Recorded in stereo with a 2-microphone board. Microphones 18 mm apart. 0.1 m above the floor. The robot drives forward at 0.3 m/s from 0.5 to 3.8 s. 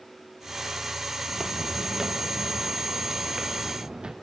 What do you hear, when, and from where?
1.3 s footsteps: 20° right (ahead or behind), 1.1 m; by 4.1 s 60° right (ahead or behind), 2.5 m